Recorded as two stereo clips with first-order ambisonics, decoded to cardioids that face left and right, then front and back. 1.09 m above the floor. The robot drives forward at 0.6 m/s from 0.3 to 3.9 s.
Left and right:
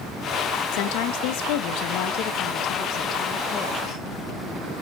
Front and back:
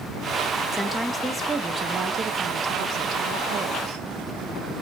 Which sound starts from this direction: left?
A woman speaking, at 0.7 s.